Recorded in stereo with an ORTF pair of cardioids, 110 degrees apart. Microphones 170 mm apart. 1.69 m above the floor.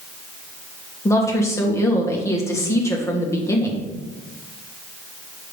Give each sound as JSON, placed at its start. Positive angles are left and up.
{"t": 1.1, "sound": "a woman speaking", "azimuth_deg": 15, "distance_m": 2.0}